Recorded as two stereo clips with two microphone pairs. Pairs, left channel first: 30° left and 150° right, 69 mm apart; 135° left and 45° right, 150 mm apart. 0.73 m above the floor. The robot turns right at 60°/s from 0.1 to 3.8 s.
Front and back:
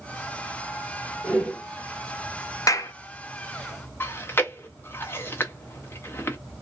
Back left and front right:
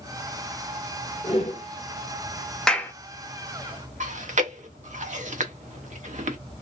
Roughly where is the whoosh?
Left.